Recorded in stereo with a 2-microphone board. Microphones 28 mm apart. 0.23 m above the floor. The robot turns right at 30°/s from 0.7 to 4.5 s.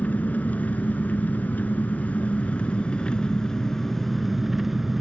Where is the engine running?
70° left, 1.1 m; by 5.0 s 175° right, 1.1 m.